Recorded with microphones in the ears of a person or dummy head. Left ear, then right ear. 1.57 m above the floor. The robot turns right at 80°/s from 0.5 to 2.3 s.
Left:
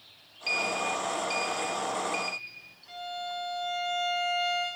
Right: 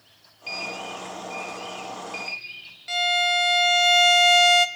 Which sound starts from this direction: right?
A violin, at 2.9 s.